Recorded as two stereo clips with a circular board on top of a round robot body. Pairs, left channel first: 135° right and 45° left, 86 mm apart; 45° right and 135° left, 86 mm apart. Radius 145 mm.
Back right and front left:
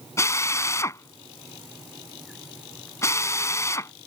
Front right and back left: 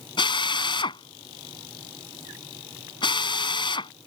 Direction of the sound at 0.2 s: 75° right.